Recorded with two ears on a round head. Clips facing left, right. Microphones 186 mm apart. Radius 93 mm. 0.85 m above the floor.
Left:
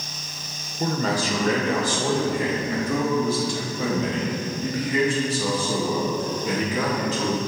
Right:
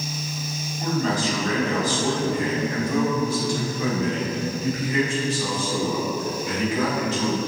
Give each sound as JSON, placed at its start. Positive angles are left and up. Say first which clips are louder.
{"t": 0.8, "sound": "a man speaking", "louder": "even", "side_deg": 50, "distance_m": 2.0}